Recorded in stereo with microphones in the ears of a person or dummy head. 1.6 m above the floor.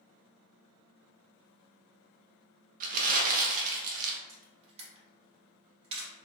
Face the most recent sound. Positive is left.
turn(degrees=-35)  # may be behind; listen again after turning